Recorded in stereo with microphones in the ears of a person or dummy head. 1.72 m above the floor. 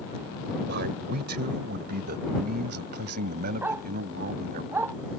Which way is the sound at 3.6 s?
15° right (ahead or behind).